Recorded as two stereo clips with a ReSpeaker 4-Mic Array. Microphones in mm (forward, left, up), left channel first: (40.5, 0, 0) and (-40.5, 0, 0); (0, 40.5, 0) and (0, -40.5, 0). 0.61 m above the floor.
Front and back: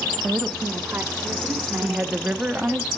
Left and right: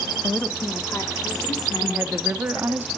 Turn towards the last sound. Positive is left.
turn(degrees=-120)